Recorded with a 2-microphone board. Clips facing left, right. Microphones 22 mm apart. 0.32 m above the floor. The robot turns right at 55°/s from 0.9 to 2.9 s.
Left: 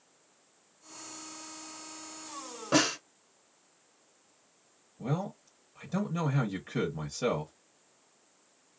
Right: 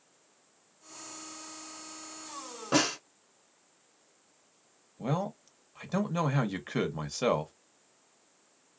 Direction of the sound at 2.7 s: Centre (ahead or behind).